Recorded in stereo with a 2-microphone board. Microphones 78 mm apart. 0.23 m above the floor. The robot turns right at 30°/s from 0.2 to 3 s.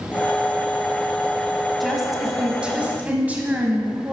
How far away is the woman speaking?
About 1.3 m.